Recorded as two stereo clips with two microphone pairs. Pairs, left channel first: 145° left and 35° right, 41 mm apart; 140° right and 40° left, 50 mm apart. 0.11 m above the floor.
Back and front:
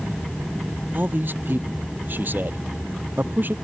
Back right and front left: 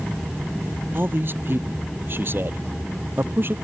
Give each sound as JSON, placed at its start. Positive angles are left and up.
{"t": 0.9, "sound": "a man speaking", "azimuth_deg": 0}